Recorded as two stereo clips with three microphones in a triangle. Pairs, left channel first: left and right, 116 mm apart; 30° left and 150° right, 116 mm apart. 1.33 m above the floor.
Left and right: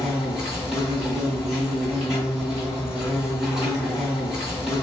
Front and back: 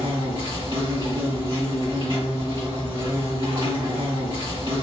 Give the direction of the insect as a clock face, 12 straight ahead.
6 o'clock.